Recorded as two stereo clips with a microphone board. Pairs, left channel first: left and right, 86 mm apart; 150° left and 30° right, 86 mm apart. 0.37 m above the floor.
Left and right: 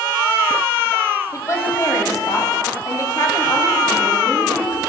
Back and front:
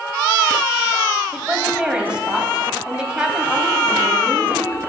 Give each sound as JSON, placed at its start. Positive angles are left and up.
{"t": 1.3, "sound": "a woman speaking", "azimuth_deg": 45, "distance_m": 2.0}